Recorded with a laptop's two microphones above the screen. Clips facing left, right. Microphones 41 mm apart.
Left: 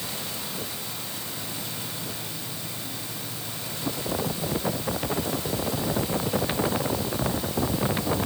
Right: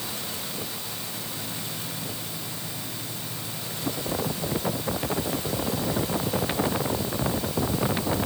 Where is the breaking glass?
I don't hear breaking glass.